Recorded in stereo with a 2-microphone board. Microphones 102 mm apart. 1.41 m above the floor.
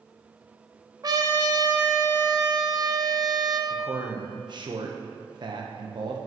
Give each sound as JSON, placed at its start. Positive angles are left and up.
{"t": 1.0, "sound": "a trumpet", "side_deg": -40, "distance_m": 0.8}
{"t": 3.7, "sound": "a man speaking", "side_deg": -50, "distance_m": 1.0}